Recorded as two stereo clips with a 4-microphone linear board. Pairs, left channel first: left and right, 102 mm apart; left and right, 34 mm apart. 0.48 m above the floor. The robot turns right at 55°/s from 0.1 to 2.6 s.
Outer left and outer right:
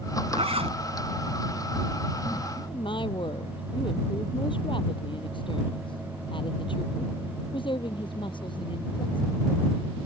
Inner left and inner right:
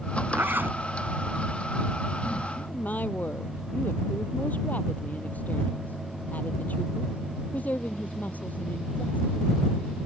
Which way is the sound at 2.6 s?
50° left (ahead or behind).